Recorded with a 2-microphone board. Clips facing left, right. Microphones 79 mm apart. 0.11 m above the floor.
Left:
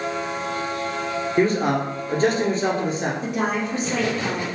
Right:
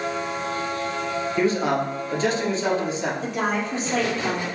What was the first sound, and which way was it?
A man speaking, 45° left (ahead or behind).